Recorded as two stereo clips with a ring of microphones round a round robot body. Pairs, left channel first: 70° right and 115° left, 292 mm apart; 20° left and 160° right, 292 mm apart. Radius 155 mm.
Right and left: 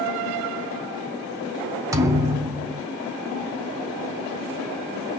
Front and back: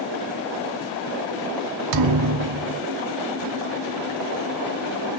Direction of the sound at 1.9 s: 170° right.